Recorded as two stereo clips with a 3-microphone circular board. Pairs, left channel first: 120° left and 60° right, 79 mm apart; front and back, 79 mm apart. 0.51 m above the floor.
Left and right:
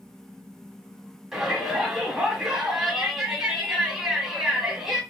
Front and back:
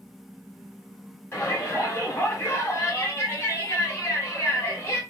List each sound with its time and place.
1.3 s a shout: 5° left, 1.4 m